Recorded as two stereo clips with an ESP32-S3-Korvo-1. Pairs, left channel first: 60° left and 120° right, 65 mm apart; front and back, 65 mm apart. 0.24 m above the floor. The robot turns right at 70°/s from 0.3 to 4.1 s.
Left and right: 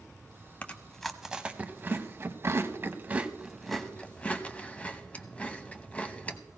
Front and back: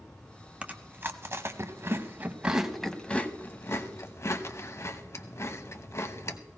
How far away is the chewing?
About 0.9 m.